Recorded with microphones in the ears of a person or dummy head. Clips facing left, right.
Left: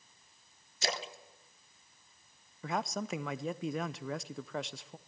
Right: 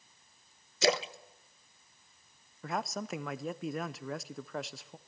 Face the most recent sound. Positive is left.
turn(degrees=0)  # may be behind; listen again after turning